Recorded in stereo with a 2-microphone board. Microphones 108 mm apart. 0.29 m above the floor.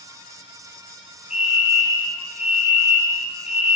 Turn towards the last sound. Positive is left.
turn(degrees=-10)  # may be behind; listen again after turning